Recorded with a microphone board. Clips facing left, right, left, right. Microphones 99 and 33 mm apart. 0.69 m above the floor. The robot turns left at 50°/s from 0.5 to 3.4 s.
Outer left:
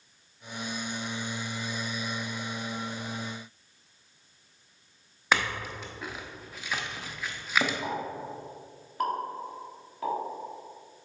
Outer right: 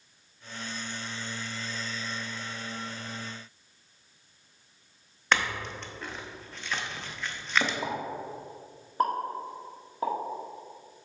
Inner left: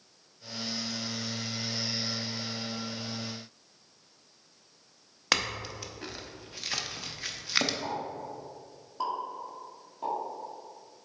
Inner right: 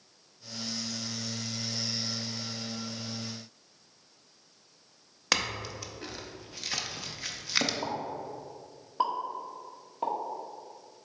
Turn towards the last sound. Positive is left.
turn(degrees=-30)  # may be behind; listen again after turning